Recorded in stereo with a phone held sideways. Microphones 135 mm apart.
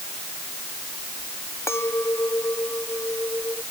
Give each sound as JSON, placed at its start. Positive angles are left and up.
{"t": 1.7, "sound": "a clink", "side_deg": 20}